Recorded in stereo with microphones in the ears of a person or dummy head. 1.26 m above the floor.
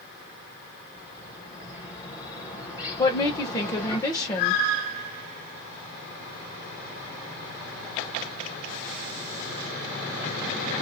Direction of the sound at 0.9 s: 15° left (ahead or behind).